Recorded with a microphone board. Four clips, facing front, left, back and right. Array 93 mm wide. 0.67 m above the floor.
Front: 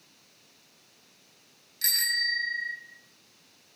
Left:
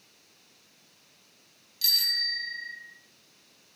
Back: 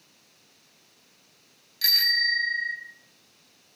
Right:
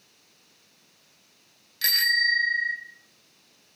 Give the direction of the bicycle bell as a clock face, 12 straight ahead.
3 o'clock.